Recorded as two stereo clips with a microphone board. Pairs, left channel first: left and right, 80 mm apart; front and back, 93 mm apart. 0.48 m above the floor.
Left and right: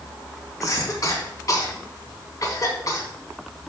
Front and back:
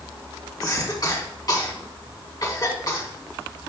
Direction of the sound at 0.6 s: 45° left.